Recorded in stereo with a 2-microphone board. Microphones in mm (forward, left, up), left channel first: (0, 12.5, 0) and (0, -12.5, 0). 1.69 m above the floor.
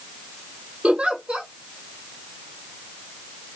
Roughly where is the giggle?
Right.